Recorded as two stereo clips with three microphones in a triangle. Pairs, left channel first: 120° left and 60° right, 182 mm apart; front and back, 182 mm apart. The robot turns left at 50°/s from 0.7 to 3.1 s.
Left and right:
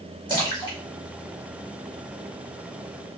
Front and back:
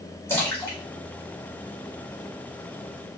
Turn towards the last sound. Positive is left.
turn(degrees=180)